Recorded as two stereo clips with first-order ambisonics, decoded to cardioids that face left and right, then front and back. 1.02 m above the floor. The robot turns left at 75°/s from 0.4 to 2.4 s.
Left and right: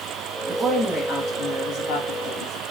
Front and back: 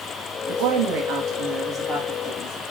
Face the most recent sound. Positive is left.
turn(degrees=50)